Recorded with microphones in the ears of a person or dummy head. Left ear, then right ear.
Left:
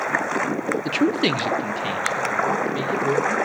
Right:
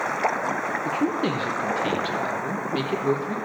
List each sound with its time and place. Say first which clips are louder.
0.8 s a man speaking: left 6 dB; 65° left (ahead or behind), 0.5 m; by 3.4 s 15° right (ahead or behind), 1.4 m